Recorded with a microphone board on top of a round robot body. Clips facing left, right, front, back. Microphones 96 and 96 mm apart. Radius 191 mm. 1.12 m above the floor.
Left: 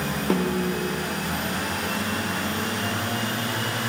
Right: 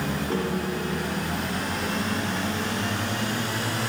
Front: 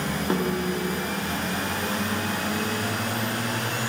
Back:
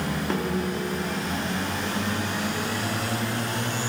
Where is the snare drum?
80° left, 1.0 m.